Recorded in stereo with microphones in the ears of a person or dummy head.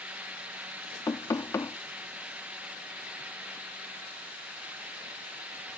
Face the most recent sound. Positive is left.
turn(degrees=10)  # may be behind; listen again after turning